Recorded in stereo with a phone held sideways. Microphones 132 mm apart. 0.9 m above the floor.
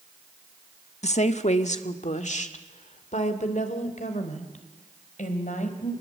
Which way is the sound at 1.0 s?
55° left (ahead or behind).